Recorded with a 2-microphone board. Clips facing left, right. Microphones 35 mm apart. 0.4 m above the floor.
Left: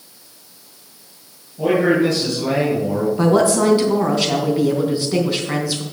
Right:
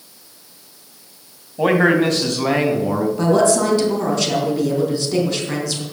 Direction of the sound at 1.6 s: 60° right (ahead or behind).